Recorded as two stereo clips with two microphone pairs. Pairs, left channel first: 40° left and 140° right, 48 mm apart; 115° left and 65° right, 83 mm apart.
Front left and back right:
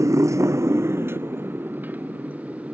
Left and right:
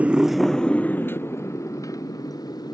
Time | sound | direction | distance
0.0 | a motorcycle | 135° right | ?